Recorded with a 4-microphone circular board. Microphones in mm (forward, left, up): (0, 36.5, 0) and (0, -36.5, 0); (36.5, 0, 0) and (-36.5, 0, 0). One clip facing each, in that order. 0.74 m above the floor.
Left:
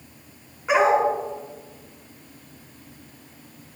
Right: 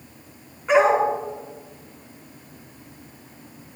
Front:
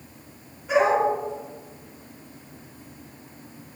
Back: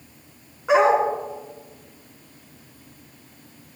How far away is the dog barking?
About 3.5 m.